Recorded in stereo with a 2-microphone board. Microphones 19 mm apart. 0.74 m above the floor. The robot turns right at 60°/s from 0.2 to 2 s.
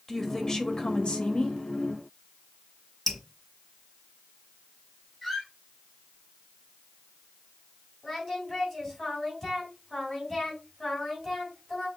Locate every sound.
0.1 s a woman speaking: 20° left, 1.0 m; by 1.6 s 105° left, 1.0 m
3.1 s dripping: 15° left (ahead or behind), 1.4 m
5.2 s a squeak: 5° left (ahead or behind), 3 m
8.0 s singing: 5° left (ahead or behind), 3 m